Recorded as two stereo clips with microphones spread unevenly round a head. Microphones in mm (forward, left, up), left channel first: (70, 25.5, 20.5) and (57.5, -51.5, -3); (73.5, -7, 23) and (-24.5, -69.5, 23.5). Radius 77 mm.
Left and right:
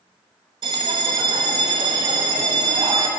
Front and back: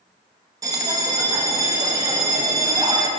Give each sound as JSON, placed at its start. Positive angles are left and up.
{"t": 0.6, "sound": "a bell", "azimuth_deg": -105, "distance_m": 0.6}